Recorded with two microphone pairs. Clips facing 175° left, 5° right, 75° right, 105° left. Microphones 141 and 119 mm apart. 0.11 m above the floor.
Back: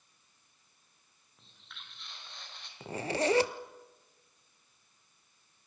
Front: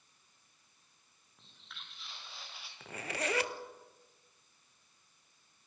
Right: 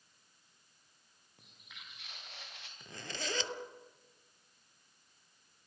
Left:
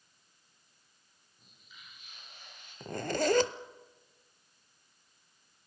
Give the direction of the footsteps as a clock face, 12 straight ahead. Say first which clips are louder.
Even, right 1 dB; 3 o'clock.